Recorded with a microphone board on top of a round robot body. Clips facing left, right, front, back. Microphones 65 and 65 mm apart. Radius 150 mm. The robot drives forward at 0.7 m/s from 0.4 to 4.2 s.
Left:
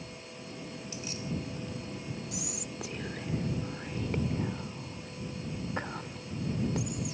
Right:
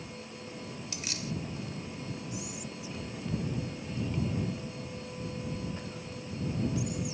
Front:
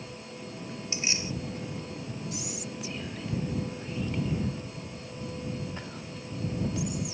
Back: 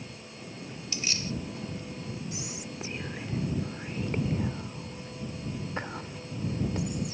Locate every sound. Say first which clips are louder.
0.9 s keys jangling: even, even; 70° right; by 1.3 s 75° right
2.3 s whispering: even, front 2 dB; 115° left; by 7.1 s 125° left